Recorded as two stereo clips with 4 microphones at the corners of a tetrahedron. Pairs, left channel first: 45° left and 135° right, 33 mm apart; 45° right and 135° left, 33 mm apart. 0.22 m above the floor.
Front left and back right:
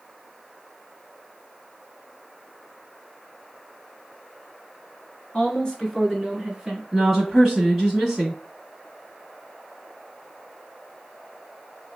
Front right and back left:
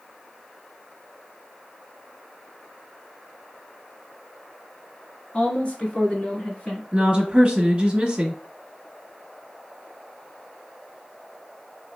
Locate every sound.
5.3 s a woman speaking: 10° right, 1.9 m; by 6.8 s 85° right, 1.8 m
6.9 s a woman speaking: 155° left, 1.1 m